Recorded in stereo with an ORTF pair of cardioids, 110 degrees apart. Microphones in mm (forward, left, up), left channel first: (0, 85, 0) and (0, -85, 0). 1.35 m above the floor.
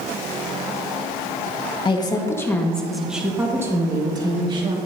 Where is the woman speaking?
30° left, 1.5 m; by 4.8 s 30° right, 2.5 m.